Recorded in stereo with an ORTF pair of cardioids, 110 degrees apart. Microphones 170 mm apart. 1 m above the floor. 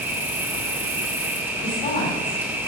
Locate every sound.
0.0 s an insect: 15° right, 0.9 m
1.6 s a woman speaking: 60° left, 2.5 m